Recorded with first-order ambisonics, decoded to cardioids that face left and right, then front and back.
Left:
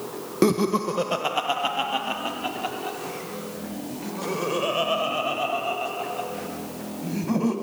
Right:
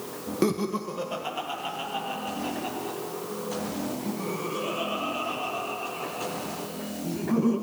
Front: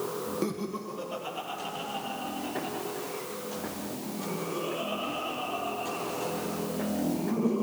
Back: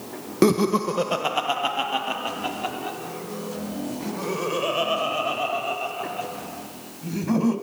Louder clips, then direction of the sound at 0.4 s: Left 6 dB, back 14 dB; 160° left.